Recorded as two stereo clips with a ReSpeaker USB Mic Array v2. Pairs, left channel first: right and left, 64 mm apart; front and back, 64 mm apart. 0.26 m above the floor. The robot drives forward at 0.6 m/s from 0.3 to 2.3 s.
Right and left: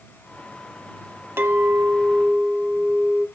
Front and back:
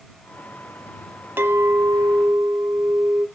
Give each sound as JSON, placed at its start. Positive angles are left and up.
{"t": 1.4, "sound": "a clink", "azimuth_deg": 135, "distance_m": 1.1}